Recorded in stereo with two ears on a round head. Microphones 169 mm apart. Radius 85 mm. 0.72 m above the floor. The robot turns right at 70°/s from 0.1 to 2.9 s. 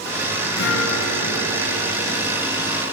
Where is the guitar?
65° left, 8 m; by 2.5 s 165° right, 8 m.